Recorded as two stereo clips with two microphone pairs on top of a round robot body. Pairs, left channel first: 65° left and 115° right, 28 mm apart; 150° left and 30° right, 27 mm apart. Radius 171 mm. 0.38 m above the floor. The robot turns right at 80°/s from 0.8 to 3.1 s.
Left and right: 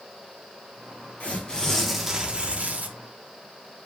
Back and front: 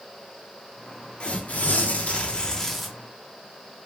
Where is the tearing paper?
105° left, 0.7 m; by 2.9 s 120° right, 0.7 m.